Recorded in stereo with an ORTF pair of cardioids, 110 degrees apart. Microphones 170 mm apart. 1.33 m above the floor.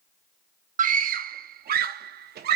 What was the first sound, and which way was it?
A scream, 50° right.